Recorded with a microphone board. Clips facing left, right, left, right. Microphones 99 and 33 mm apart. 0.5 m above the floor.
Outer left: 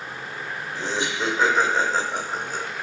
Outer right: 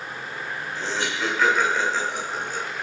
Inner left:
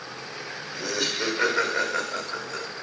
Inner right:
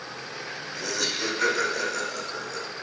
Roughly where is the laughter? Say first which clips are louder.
Outer left 1 dB, inner left 2 dB; centre.